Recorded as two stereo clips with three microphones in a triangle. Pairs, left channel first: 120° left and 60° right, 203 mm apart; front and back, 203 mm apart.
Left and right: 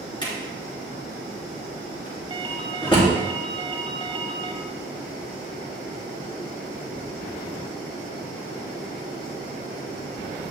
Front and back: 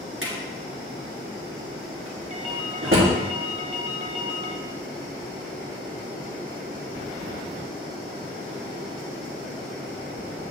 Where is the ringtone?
125° right, 0.8 m.